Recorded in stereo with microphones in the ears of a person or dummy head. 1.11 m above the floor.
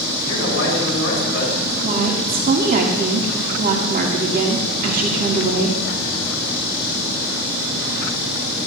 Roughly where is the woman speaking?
Right.